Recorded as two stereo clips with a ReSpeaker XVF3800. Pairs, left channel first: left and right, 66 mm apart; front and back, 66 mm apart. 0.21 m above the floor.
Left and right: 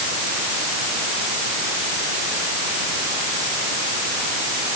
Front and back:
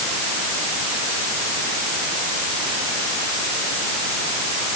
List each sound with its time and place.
Only background noise.